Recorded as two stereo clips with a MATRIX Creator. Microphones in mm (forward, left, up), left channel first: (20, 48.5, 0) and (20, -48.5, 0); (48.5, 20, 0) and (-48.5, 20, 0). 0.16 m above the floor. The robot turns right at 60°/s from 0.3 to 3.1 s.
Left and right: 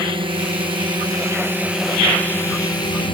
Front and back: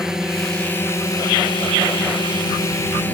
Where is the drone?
95° right; by 3.1 s 70° left.